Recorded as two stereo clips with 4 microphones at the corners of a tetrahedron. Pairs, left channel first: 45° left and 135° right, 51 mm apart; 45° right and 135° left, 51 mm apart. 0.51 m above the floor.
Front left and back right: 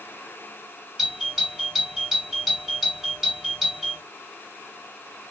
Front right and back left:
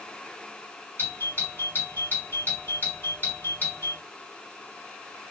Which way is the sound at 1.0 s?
50° right.